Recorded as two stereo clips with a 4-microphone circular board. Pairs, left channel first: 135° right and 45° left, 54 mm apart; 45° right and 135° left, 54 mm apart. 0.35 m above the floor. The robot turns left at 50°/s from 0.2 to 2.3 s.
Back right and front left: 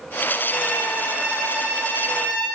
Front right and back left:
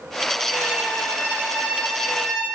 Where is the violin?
135° left, 3 m; by 2.5 s 45° left, 3 m.